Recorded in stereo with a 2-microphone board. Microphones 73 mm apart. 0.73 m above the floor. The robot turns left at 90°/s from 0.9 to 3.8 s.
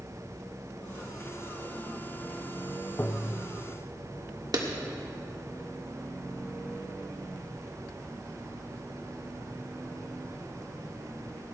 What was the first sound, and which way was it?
Tapping, 55° left.